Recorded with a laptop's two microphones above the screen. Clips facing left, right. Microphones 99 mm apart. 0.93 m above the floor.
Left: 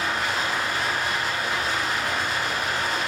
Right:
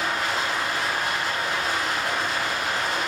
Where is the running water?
80° left, 1.1 m.